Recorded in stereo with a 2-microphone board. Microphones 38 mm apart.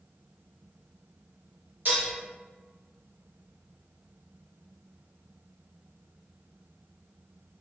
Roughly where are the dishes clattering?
Right.